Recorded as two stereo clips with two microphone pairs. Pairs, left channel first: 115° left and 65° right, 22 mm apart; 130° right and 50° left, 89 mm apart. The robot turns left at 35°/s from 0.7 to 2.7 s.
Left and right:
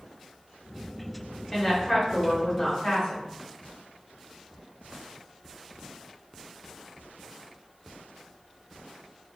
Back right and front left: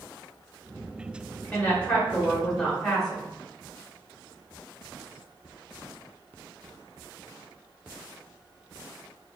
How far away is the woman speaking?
About 1.1 m.